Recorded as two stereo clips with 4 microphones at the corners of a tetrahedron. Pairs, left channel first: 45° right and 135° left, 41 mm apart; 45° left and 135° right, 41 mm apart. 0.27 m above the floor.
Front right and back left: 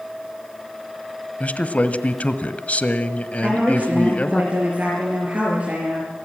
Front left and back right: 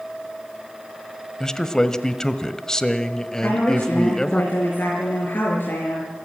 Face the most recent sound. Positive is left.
turn(degrees=80)